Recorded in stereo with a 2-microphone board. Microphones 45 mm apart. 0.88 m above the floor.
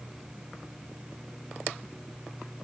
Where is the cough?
No cough in this recording.